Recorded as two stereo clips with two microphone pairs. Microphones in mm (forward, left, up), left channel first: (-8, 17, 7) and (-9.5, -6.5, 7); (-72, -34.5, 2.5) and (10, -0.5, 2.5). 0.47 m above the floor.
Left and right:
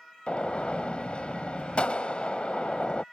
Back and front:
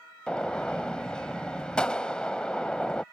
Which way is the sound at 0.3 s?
125° left.